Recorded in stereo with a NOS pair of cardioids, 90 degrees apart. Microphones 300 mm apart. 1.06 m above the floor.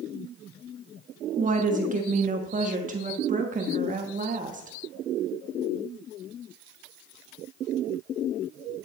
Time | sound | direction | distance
1.4 | a woman speaking | 25° right | 1.3 m